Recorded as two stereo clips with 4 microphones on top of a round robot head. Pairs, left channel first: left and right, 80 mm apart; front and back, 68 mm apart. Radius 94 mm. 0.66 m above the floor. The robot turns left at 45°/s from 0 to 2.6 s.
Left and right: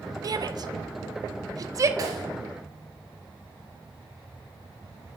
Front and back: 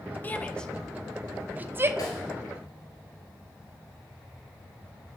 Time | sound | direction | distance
0.2 | a shout | 60° right | 0.8 m
2.0 | a snare drum | 45° right | 2 m